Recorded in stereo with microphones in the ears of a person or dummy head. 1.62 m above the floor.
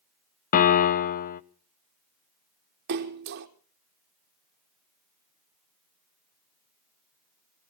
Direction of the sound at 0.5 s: 45° left (ahead or behind).